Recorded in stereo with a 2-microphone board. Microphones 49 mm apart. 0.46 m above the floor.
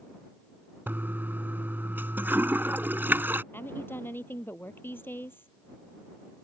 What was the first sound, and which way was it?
A toilet flushing, 45° right (ahead or behind).